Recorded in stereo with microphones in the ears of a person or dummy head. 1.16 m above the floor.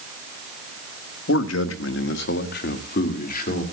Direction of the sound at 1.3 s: 75° left (ahead or behind).